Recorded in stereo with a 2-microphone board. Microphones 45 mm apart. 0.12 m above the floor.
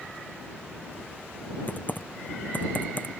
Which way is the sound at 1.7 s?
40° left (ahead or behind).